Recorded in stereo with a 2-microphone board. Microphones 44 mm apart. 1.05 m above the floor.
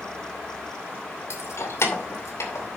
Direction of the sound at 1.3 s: 60° left (ahead or behind).